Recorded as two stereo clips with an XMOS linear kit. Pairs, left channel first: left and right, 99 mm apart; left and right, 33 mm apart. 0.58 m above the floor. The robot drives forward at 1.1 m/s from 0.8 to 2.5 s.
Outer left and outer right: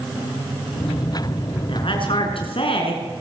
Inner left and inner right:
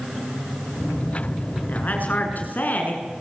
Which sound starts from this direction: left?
A woman speaking, at 1.7 s.